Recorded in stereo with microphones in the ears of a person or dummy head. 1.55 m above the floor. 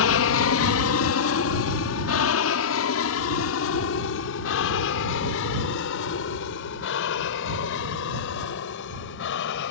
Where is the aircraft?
65° left (ahead or behind).